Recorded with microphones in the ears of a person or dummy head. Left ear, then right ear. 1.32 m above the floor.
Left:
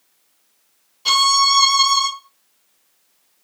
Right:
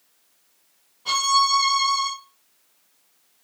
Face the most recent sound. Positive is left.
turn(degrees=80)